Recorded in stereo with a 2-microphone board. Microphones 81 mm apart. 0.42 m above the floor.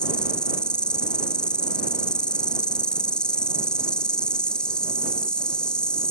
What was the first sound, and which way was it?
An insect, 10° left (ahead or behind).